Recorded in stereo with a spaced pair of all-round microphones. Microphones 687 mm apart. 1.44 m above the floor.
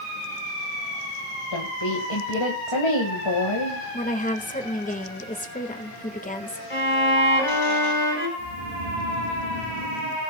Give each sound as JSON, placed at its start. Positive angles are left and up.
{"t": 1.5, "sound": "a woman speaking", "side_deg": 40, "distance_m": 1.8}
{"t": 3.9, "sound": "a woman speaking", "side_deg": 10, "distance_m": 1.6}
{"t": 6.7, "sound": "a violin", "side_deg": 45, "distance_m": 4.0}
{"t": 8.4, "sound": "snoring", "side_deg": -45, "distance_m": 2.5}